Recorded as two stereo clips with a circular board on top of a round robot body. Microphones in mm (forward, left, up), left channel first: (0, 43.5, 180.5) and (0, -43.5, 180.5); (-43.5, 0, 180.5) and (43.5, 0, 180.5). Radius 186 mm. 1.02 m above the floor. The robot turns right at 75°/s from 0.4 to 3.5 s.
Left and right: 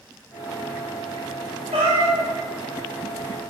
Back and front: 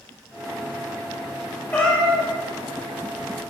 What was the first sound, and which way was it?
A cat meowing, 115° right.